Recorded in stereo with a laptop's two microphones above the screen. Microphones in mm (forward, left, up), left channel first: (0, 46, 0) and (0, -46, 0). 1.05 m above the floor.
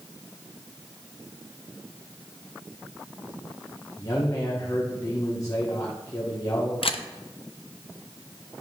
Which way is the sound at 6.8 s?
80° left.